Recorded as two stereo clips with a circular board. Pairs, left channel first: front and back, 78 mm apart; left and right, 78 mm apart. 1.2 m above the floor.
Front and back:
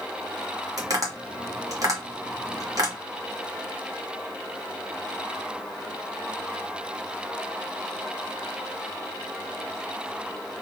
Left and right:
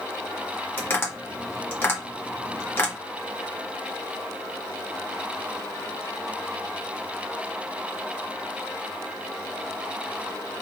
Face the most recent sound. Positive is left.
turn(degrees=145)